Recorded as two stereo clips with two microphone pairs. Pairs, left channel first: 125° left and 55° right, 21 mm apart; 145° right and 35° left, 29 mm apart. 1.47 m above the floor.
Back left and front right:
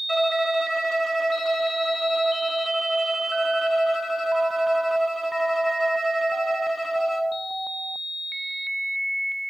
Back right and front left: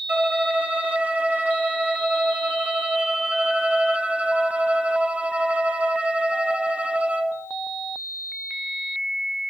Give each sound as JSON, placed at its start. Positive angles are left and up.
{"t": 0.1, "sound": "a violin", "azimuth_deg": 45, "distance_m": 0.8}